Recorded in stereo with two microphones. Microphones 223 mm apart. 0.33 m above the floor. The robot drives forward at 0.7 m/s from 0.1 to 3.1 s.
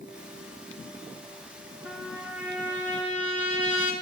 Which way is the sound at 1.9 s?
10° right (ahead or behind).